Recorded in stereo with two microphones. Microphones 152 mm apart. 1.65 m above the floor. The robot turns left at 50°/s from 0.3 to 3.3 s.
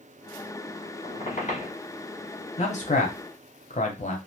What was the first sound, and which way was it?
A squeak, 120° left.